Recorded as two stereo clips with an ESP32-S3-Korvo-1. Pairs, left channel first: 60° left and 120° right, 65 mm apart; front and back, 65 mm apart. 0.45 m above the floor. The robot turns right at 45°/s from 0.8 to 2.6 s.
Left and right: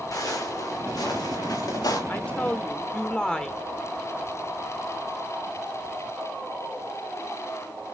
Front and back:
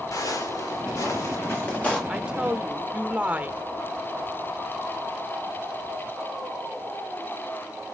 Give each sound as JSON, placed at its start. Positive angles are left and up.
{"t": 0.1, "sound": "footsteps", "azimuth_deg": 30, "distance_m": 8.0}
{"t": 2.1, "sound": "a woman speaking", "azimuth_deg": 110, "distance_m": 1.1}